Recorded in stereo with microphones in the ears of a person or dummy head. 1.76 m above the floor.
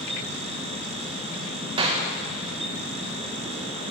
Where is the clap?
30° right (ahead or behind), 1.9 m.